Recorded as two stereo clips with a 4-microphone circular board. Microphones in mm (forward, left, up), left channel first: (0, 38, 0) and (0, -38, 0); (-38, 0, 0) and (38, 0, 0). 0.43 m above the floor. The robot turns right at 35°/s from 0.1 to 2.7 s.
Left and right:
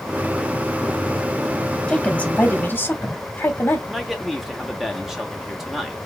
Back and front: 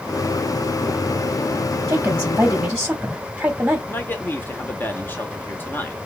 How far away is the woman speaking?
About 1.2 m.